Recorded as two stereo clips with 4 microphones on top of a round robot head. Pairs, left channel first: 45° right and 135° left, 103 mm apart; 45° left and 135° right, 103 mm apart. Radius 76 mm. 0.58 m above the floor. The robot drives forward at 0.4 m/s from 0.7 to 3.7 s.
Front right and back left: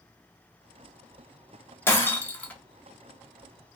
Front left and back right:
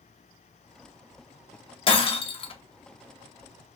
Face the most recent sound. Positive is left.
turn(degrees=80)